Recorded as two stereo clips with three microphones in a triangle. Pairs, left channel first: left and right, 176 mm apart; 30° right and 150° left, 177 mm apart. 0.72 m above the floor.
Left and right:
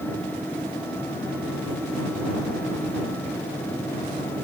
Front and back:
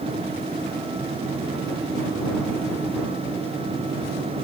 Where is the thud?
I don't hear a thud.